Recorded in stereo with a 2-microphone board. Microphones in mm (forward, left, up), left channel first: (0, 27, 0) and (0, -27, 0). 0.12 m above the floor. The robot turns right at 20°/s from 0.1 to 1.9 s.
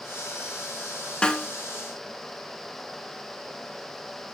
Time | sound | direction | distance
1.2 | a snare drum | 15° left (ahead or behind) | 0.9 m